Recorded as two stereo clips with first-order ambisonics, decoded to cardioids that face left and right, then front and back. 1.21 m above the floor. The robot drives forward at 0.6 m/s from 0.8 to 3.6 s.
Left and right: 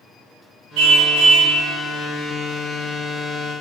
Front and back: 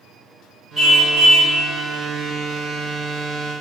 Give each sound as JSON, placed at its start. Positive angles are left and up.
{"t": 0.8, "sound": "a car horn", "azimuth_deg": -90, "distance_m": 5.5}